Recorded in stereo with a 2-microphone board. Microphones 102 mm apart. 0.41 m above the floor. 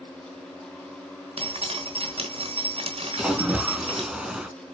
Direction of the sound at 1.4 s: 70° right (ahead or behind).